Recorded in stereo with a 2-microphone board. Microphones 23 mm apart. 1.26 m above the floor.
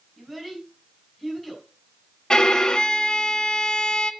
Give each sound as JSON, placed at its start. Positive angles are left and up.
{"t": 0.2, "sound": "a child speaking", "side_deg": -15, "distance_m": 3.5}
{"t": 2.3, "sound": "a violin", "side_deg": 35, "distance_m": 0.6}